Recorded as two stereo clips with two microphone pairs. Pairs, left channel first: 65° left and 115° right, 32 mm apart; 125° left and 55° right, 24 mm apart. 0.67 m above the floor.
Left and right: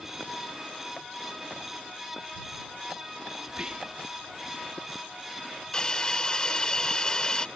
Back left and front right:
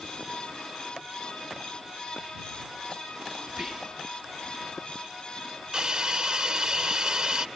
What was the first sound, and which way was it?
Whispering, 120° right.